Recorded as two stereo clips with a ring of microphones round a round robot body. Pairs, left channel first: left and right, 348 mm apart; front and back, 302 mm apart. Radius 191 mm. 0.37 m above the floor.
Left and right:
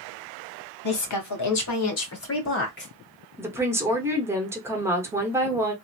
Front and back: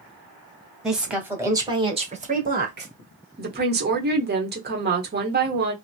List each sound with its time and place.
0.8 s a woman speaking: 90° left, 1.7 m; by 2.9 s 140° left, 1.5 m
3.4 s a woman speaking: 165° right, 1.1 m